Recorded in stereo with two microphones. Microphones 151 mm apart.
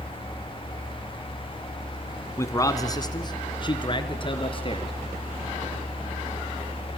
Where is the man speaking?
20° left (ahead or behind), 1.7 m; by 4.9 s 40° left (ahead or behind), 3.5 m.